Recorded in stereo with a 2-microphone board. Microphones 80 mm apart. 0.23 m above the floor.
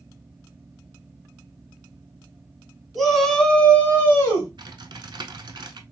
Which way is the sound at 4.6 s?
75° right (ahead or behind).